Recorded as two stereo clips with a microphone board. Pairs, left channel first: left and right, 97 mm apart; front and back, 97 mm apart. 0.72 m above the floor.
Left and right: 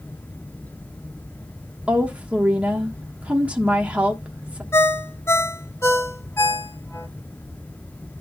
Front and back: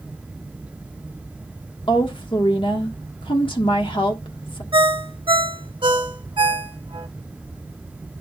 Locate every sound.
1.9 s a woman speaking: 15° right, 1.4 m
4.7 s a ringtone: 150° left, 0.7 m